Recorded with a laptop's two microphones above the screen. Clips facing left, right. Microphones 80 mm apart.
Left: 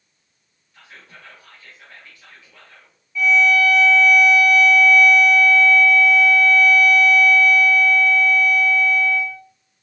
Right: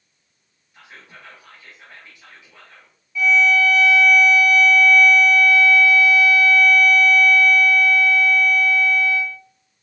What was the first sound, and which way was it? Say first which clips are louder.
Whispering: right 1 dB; 20° right (ahead or behind).